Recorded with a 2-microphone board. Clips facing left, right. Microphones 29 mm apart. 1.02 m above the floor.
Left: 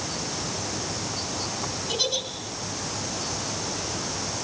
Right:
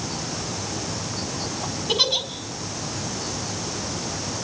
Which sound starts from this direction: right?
A giggle, at 1.9 s.